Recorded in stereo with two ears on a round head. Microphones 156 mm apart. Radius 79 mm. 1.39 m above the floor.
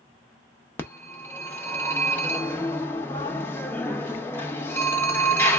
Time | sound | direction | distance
0.8 | a phone ringing | 15° left (ahead or behind) | 0.7 m